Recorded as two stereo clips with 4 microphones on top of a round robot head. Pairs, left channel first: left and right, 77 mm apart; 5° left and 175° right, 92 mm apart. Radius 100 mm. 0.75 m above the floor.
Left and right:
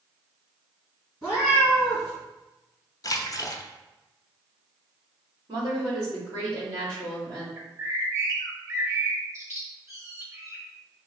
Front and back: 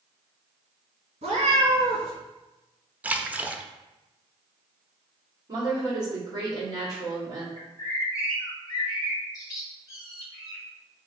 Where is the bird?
45° right, 1.1 m.